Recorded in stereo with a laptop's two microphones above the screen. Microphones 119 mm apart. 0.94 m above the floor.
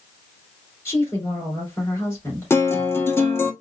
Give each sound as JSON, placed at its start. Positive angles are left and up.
{"t": 0.8, "sound": "a woman speaking", "side_deg": 20, "distance_m": 3.0}
{"t": 2.5, "sound": "a guitar", "side_deg": 20, "distance_m": 0.7}